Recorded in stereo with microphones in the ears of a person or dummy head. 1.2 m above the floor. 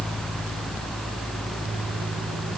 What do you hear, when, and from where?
Only background noise.